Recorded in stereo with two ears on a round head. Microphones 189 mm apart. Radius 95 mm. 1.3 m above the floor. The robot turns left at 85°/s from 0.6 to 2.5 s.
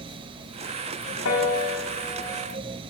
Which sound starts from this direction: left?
A piano, at 1.2 s.